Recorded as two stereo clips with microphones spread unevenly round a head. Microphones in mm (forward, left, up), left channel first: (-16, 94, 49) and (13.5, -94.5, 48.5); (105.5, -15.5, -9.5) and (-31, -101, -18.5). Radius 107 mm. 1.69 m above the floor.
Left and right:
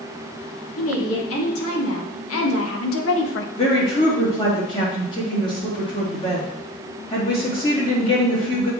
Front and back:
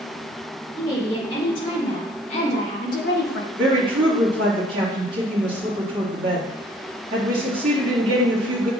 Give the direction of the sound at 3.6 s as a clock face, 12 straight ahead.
7 o'clock.